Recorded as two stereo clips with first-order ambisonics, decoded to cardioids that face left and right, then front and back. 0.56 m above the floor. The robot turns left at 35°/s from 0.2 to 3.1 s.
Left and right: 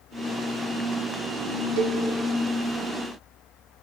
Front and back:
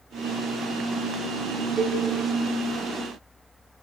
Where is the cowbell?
95° right, 1.0 m; by 2.0 s 105° right, 1.0 m.